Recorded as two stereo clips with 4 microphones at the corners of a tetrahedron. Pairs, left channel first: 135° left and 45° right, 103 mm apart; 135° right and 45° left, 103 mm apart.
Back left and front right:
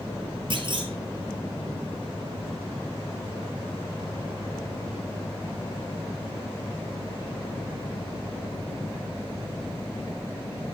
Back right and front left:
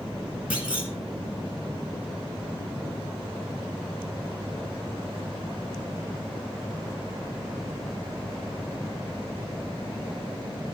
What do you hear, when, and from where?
0.5 s a clunk: 25° right, 1.8 m